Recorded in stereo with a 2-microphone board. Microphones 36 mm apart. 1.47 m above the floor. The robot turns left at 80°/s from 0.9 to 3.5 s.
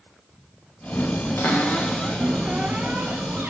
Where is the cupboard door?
70° left, 0.8 m; by 3.5 s 100° right, 0.8 m.